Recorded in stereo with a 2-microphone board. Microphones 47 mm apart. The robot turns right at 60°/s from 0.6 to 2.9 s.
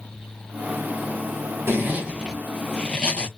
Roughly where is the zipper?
Ahead right.